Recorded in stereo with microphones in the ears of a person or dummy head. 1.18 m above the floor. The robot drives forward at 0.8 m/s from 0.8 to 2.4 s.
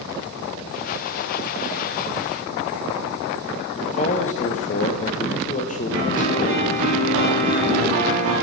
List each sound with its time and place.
3.8 s a man speaking: 40° left (ahead or behind), 1.1 m
5.9 s a piano: 80° right, 4 m